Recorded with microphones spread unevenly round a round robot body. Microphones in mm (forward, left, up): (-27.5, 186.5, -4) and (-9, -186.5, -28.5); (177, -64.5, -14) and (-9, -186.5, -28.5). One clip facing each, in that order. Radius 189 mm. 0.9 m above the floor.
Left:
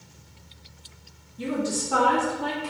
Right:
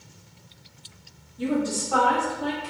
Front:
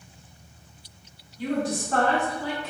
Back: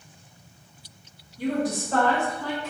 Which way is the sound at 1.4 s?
175° left.